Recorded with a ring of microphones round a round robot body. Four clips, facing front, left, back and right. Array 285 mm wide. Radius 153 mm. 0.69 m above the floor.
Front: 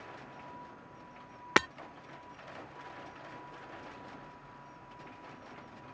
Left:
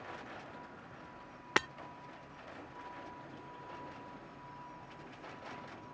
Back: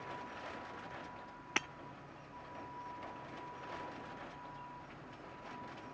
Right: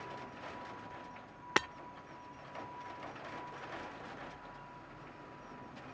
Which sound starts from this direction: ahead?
Breaking glass, at 1.6 s.